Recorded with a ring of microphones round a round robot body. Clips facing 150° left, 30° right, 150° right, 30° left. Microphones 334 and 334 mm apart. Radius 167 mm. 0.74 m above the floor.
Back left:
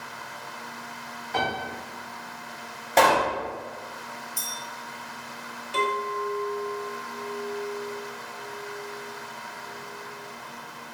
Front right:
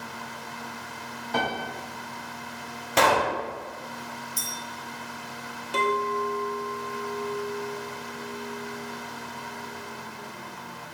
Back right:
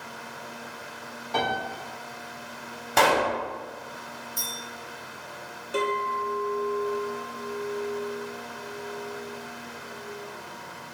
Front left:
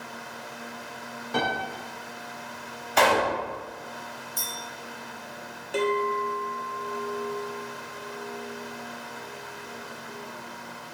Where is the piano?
30° right, 1.3 m.